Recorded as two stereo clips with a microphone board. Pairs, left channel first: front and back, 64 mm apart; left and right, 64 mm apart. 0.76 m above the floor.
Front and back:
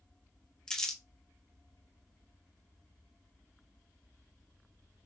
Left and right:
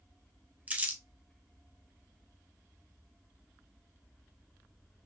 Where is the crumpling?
65° right, 0.7 m.